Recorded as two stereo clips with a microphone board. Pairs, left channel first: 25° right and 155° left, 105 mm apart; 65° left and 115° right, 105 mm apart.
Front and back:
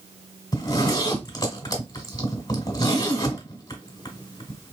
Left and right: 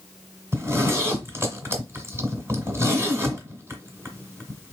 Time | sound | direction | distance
0.5 | a zipper | 55° right | 1.5 m